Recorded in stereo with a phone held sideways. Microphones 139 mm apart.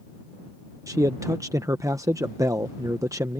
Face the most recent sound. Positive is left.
turn(degrees=-25)  # may be behind; listen again after turning